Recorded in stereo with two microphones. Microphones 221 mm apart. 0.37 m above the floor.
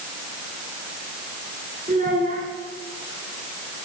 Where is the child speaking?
35° right (ahead or behind), 2.5 m.